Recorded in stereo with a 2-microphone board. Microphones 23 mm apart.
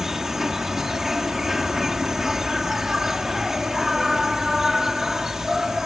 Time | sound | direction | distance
0.0 | an insect | 15° right (ahead or behind) | ?